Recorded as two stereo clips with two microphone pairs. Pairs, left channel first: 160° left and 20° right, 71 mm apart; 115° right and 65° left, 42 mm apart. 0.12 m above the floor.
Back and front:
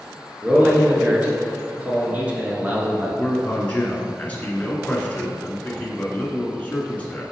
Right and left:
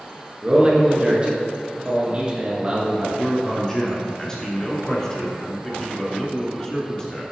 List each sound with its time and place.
0.4 s a man speaking: 30° left, 1.6 m
3.2 s a man speaking: 165° right, 1.2 m